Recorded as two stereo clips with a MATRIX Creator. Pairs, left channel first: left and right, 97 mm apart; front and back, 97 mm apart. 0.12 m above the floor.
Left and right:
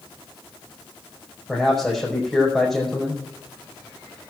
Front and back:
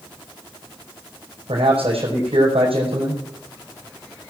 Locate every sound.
1.5 s a man speaking: straight behind, 5 m